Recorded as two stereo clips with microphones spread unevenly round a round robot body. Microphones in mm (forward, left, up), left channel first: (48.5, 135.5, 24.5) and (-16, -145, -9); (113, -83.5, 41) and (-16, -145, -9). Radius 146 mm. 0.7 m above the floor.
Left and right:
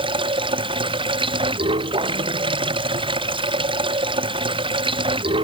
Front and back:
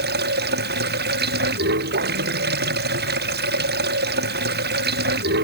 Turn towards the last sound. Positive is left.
turn(degrees=180)